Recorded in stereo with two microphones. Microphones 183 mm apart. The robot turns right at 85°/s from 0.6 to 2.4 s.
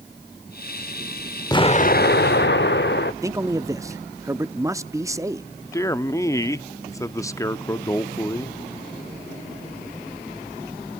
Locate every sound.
1.5 s an explosion: 25° left, 0.7 m; by 3.1 s 100° left, 0.7 m
3.2 s a man speaking: 15° right (ahead or behind), 0.6 m
5.7 s a man speaking: 15° left (ahead or behind), 0.7 m